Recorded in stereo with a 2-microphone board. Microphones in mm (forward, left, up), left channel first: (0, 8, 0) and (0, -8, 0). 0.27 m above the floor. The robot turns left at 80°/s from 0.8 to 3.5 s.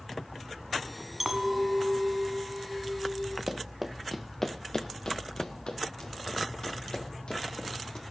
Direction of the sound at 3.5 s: 35° right (ahead or behind).